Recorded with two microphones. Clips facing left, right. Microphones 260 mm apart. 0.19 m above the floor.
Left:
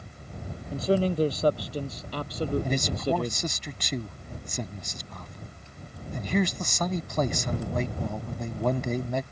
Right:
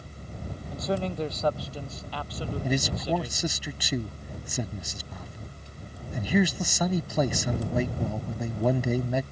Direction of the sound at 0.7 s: 30° left (ahead or behind).